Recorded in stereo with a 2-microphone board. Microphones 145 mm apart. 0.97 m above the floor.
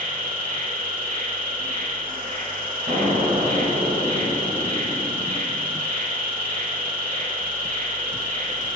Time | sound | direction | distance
0.0 | an insect | 75° right (ahead or behind) | 1.8 m
2.9 | an explosion | 80° right | 2.5 m